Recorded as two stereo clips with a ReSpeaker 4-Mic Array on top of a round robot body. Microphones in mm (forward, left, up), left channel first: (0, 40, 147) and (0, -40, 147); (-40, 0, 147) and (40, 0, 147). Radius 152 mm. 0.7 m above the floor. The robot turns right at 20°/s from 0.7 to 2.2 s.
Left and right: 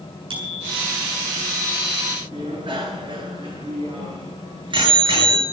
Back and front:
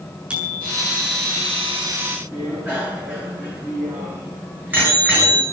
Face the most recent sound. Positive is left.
turn(degrees=-70)